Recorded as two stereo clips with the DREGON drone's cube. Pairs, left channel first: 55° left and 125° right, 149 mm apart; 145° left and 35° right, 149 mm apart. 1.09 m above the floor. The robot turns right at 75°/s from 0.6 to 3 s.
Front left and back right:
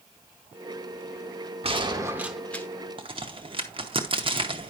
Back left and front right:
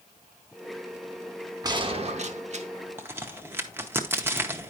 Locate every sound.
1.6 s a gunshot: 90° right, 0.9 m; by 2.7 s 15° right, 0.9 m
3.0 s a crack: 100° right, 0.9 m